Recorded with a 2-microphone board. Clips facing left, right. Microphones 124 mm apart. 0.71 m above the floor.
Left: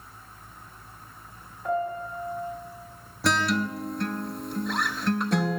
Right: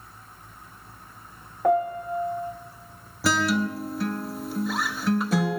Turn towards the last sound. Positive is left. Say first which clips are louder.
# right 2 dB
turn(degrees=-5)  # may be behind; listen again after turning